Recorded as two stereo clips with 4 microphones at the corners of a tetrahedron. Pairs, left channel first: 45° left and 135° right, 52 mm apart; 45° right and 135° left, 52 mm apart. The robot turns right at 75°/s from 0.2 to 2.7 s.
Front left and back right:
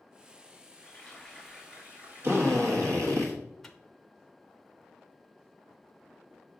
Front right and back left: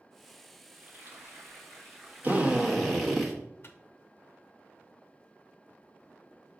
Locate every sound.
0.7 s frying: 80° left, 2 m; by 3.2 s 135° right, 2 m
2.2 s a drill: 170° right, 1.2 m; by 3.3 s 140° right, 1.2 m
3.6 s a microwave: 40° right, 0.6 m